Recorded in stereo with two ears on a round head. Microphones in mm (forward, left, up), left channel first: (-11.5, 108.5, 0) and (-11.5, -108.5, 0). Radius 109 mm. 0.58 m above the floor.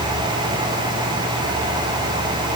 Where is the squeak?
I don't hear a squeak.